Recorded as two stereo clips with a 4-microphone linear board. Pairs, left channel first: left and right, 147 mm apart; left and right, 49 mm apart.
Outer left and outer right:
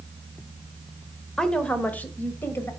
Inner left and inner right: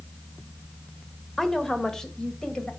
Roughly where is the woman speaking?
Centre.